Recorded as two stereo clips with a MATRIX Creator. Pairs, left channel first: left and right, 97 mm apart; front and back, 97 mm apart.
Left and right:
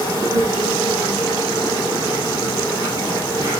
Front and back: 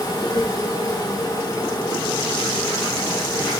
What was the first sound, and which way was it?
An insect, 35° right.